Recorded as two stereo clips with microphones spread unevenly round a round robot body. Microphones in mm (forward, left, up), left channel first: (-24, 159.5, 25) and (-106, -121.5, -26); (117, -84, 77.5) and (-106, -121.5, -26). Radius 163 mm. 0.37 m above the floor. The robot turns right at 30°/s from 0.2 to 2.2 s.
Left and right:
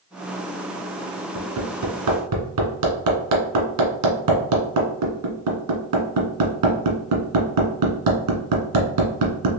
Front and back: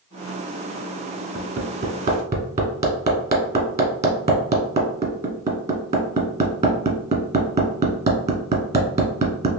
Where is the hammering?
135° right, 1.5 m; by 9.5 s 110° right, 1.5 m.